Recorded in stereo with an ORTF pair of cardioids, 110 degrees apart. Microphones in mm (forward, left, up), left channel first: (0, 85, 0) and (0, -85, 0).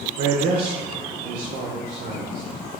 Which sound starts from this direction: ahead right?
A man speaking, at 0.2 s.